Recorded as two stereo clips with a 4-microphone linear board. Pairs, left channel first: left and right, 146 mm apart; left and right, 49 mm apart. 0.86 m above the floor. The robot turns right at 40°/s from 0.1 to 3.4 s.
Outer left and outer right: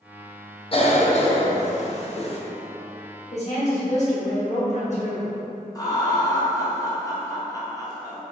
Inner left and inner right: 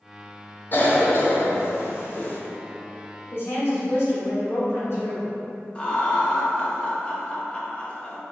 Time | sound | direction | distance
0.7 | a cough | 40° left (ahead or behind) | 0.7 m
3.3 | a woman speaking | 55° left (ahead or behind) | 1.3 m
5.8 | laughter | 25° left (ahead or behind) | 0.8 m